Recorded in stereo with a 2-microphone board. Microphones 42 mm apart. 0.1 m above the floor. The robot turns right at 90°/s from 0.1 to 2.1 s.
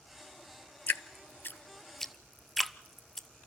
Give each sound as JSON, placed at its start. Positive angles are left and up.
{"t": 0.9, "sound": "dripping", "side_deg": 50, "distance_m": 0.5}